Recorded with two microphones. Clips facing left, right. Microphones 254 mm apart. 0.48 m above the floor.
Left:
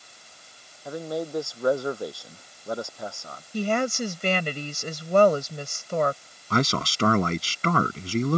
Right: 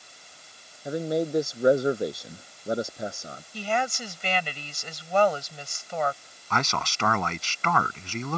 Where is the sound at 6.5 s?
40° left (ahead or behind).